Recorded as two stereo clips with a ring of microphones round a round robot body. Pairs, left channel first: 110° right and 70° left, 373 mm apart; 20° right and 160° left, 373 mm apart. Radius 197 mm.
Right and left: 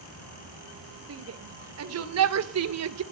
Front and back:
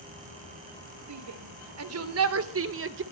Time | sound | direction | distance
1.1 | a shout | 115° left | 3 m